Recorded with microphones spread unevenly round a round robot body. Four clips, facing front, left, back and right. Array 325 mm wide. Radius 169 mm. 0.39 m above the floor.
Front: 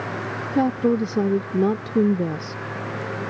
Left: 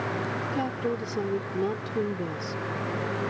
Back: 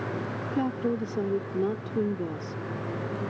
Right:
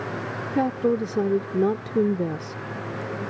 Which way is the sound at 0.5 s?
60° right.